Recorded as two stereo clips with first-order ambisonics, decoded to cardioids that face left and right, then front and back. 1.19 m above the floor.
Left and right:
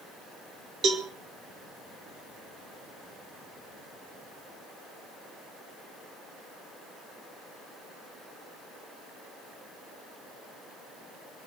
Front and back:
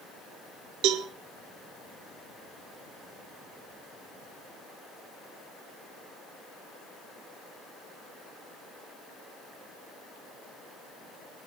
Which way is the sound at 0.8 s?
150° right.